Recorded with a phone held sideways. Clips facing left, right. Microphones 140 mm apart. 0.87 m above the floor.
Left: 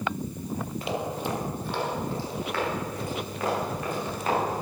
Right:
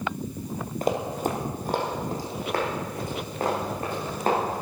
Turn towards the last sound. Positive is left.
turn(degrees=-35)  # may be behind; listen again after turning